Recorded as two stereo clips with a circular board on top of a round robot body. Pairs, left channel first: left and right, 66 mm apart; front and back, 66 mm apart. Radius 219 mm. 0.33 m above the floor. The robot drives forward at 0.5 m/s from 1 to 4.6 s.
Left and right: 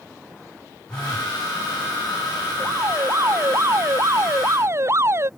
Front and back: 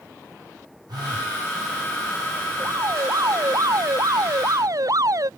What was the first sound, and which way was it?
A phone buzzing, 170° left.